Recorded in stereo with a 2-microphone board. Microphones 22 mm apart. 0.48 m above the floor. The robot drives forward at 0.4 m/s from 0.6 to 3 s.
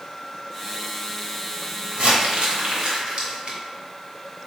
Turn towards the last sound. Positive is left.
turn(degrees=-50)  # may be behind; listen again after turning